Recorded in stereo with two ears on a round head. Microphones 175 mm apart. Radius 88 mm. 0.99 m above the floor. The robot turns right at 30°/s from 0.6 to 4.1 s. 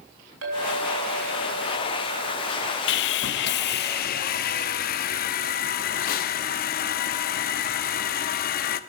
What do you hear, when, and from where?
0.4 s a clink: 110° right, 3.5 m; by 2.8 s 45° right, 3.5 m
2.9 s sawing: 85° left, 0.6 m; by 8.8 s 120° left, 0.6 m